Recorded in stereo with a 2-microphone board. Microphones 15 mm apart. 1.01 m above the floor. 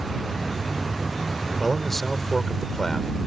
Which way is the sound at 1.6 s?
15° left (ahead or behind).